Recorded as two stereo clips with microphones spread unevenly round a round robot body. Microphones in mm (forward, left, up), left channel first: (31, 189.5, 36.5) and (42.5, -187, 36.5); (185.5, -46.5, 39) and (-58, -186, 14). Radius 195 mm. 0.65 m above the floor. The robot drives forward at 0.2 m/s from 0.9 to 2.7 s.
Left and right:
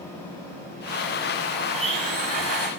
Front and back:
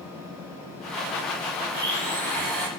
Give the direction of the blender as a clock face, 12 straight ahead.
6 o'clock.